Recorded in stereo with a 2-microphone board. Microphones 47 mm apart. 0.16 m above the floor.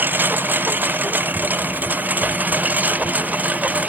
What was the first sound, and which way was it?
A lawn mower, 40° right (ahead or behind).